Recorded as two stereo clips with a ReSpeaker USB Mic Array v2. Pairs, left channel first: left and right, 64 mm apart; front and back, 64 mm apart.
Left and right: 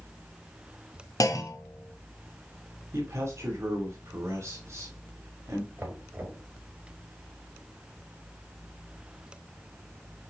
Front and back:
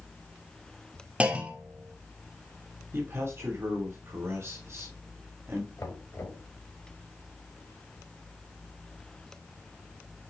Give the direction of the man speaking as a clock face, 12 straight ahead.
4 o'clock.